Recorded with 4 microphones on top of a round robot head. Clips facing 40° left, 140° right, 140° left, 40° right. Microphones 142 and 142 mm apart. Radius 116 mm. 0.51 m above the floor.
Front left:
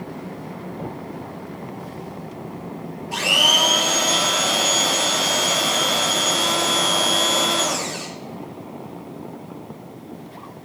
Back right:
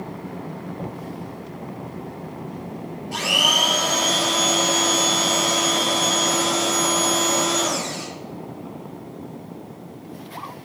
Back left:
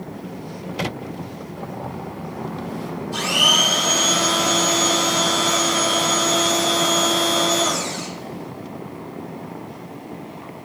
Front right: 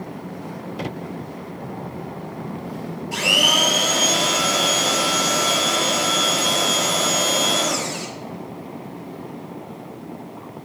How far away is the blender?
About 5 m.